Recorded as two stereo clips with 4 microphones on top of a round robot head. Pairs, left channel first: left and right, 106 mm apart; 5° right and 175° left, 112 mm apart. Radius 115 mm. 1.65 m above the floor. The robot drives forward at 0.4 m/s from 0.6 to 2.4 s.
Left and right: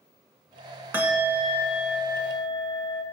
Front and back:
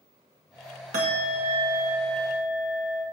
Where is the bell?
160° right, 1.7 m; by 3.0 s 165° right, 2 m.